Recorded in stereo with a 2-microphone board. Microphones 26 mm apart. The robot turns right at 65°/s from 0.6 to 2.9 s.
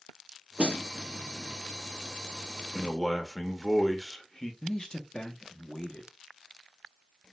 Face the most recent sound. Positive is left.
turn(degrees=35)  # may be behind; listen again after turning